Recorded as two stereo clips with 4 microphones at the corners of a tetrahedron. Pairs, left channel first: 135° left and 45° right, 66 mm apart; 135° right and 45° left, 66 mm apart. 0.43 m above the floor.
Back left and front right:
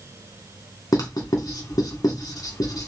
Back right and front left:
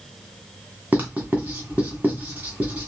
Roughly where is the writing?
Left.